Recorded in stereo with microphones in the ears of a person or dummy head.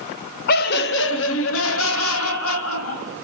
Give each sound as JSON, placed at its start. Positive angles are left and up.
{"t": 0.5, "sound": "laughter", "side_deg": 55, "distance_m": 0.8}